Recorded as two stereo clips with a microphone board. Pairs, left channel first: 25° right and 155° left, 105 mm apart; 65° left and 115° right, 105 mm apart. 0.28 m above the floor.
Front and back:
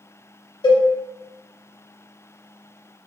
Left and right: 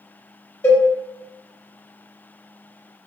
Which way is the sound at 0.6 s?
10° left.